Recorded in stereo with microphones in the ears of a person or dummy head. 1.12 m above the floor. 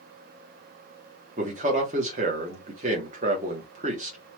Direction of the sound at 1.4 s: 35° right (ahead or behind).